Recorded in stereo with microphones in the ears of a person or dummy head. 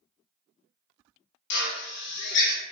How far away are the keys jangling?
No keys jangling in this recording.